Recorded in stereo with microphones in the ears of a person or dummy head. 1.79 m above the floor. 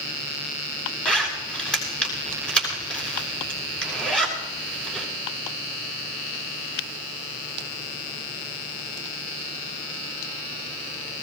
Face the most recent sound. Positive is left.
turn(degrees=5)  # may be behind; listen again after turning